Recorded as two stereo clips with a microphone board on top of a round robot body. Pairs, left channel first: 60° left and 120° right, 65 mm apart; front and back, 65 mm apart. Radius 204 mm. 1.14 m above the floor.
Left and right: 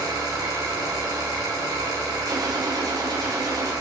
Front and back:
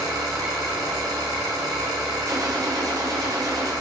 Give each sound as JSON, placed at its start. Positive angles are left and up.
{"t": 0.0, "sound": "an engine running", "azimuth_deg": -150, "distance_m": 3.5}
{"t": 2.3, "sound": "a gunshot", "azimuth_deg": -145, "distance_m": 3.0}